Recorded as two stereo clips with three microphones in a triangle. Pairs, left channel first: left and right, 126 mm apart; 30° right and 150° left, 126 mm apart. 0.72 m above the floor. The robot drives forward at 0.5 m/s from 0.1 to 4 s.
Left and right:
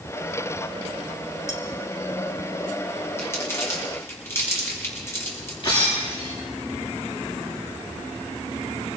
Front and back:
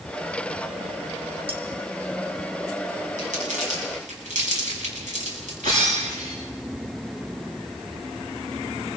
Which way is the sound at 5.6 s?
135° left.